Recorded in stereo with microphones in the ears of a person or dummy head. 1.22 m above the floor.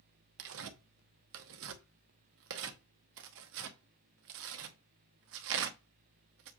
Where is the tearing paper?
65° right (ahead or behind), 1.0 m.